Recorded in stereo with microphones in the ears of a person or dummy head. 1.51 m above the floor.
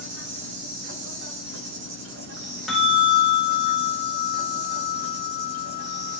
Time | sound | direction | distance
0.0 | an insect | 60° right (ahead or behind) | 2 m
2.7 | a bell | centre (ahead or behind) | 3 m